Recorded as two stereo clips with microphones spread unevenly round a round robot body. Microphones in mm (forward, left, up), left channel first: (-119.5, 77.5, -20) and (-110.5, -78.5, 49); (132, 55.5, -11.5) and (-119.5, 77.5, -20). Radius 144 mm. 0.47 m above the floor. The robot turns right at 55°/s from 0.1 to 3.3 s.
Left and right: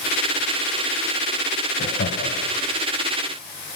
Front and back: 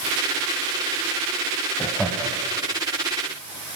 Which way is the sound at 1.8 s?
70° left.